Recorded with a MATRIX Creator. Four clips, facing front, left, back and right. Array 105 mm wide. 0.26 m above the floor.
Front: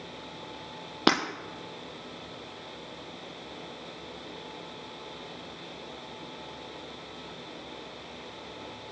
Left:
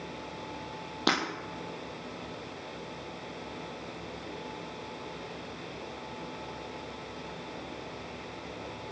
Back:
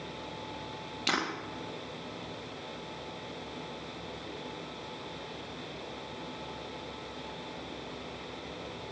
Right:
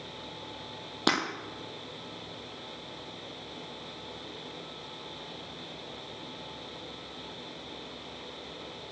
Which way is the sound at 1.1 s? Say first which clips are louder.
Right 1 dB, front 8 dB; 5° right.